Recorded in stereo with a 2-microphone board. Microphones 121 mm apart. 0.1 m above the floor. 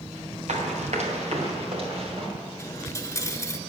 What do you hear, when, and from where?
0.5 s running footsteps: 70° right (ahead or behind), 2.5 m; by 2.3 s 50° right (ahead or behind), 3.5 m
2.6 s a dropped coin: 25° left (ahead or behind), 0.5 m